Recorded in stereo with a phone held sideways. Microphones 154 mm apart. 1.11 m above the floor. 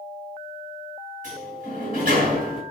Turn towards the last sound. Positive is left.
turn(degrees=-60)  # may be behind; listen again after turning